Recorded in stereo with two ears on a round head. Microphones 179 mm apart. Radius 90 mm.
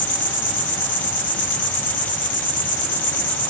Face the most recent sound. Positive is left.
turn(degrees=45)  # may be behind; listen again after turning